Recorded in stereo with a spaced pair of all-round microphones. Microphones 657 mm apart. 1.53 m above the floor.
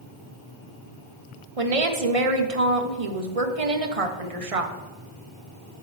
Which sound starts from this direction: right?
A woman speaking, at 1.6 s.